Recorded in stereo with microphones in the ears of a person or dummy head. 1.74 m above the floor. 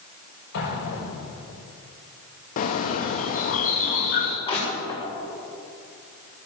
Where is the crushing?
20° left (ahead or behind), 5.5 m.